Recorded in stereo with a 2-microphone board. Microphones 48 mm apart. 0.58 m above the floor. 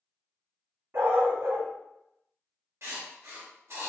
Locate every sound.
0.9 s a dog barking: 60° right (ahead or behind), 1.0 m
2.8 s writing: 70° right (ahead or behind), 1.0 m